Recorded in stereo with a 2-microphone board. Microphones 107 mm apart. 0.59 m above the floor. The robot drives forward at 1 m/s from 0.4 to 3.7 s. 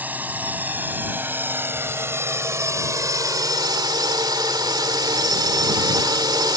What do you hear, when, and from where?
0.0 s a drone: 15° right (ahead or behind); by 6.6 s 40° right (ahead or behind)